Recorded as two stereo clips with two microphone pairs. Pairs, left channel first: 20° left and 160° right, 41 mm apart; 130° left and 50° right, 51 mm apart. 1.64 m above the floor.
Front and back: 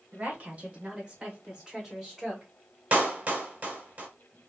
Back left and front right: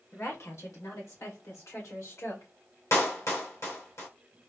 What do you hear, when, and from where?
0.1 s a woman speaking: 155° left, 1.5 m; by 2.5 s 120° left, 2.5 m
2.9 s a clap: 150° left, 1.4 m